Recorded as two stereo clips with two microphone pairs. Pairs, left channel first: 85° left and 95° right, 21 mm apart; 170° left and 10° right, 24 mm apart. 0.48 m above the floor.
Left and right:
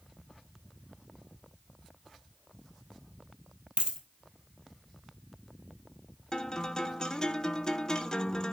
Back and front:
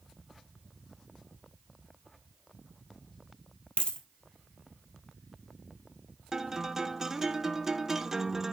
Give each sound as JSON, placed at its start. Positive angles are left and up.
{"t": 3.8, "sound": "a dropped coin", "azimuth_deg": -140, "distance_m": 1.5}
{"t": 6.3, "sound": "a guitar", "azimuth_deg": 50, "distance_m": 0.8}